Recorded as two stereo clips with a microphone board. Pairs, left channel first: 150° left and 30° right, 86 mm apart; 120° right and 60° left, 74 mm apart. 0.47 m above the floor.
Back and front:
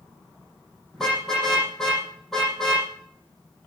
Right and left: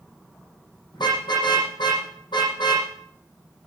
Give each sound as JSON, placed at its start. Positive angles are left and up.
{"t": 0.9, "sound": "a car horn", "azimuth_deg": -125, "distance_m": 7.5}